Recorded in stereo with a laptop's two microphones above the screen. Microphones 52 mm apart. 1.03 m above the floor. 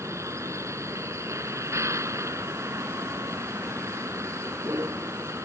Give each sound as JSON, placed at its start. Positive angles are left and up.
{"t": 0.0, "sound": "a vehicle", "side_deg": -70}